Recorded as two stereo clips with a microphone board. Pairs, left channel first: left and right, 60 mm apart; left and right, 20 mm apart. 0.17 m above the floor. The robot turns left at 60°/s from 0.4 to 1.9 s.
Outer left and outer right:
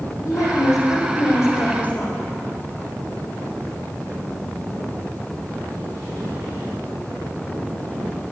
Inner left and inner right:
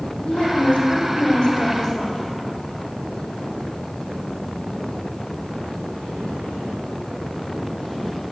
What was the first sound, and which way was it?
A woman speaking, 110° left.